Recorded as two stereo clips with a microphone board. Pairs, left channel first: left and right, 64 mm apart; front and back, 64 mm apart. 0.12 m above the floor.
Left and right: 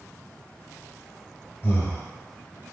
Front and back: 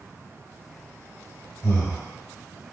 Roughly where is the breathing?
Ahead left.